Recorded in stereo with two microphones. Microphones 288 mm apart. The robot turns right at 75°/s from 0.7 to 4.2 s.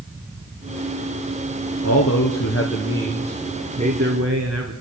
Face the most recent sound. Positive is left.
turn(degrees=-125)